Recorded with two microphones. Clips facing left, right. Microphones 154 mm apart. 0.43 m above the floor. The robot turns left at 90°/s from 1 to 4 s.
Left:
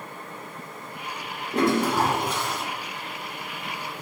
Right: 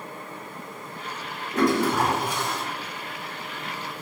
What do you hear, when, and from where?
1.5 s a toilet flushing: 50° left, 0.9 m; by 2.6 s 45° right, 0.9 m